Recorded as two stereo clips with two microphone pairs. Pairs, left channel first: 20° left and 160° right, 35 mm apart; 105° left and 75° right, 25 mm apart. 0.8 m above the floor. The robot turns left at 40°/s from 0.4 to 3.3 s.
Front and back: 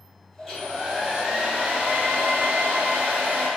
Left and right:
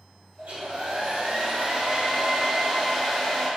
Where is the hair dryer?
60° right, 1.7 m; by 3.5 s 175° right, 1.7 m.